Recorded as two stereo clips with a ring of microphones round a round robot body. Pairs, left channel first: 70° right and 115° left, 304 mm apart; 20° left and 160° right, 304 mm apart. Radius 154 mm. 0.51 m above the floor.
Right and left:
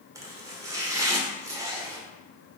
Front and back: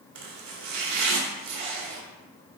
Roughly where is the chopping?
Behind.